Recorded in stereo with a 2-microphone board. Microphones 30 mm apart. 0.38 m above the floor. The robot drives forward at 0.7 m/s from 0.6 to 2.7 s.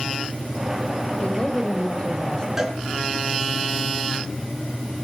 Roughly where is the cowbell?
Centre.